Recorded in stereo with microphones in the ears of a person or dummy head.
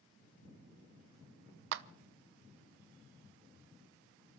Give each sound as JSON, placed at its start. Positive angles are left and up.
{"t": 1.7, "sound": "a clap", "side_deg": -60, "distance_m": 0.8}